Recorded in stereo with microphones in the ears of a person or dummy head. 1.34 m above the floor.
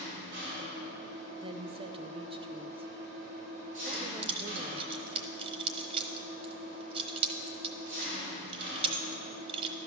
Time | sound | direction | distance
0.0 | an engine running | 50° right (ahead or behind) | 5 m
1.4 | a woman speaking | 25° right (ahead or behind) | 0.6 m
3.9 | keys jangling | 30° right (ahead or behind) | 1.0 m